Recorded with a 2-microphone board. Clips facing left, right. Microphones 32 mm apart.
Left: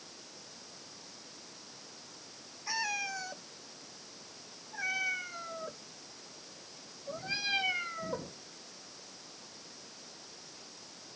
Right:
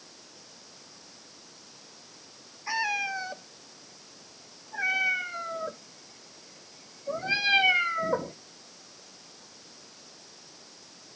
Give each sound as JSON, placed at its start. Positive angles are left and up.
{"t": 2.7, "sound": "a cat meowing", "side_deg": -25}